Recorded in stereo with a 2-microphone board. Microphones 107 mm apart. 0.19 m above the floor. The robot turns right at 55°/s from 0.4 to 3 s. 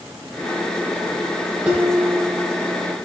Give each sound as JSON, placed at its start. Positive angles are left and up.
{"t": 1.6, "sound": "dishes clattering", "azimuth_deg": -20, "distance_m": 4.0}